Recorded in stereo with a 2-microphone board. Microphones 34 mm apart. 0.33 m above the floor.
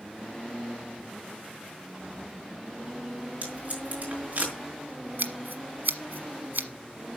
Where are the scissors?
75° right (ahead or behind), 1.3 m.